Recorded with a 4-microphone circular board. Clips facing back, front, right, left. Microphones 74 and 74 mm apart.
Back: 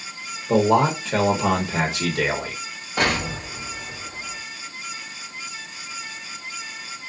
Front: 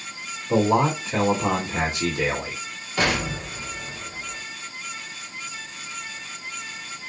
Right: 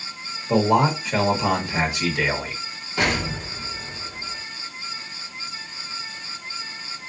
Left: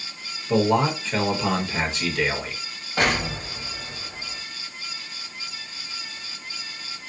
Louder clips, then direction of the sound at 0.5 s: Back 2 dB, right 2 dB; 170° right.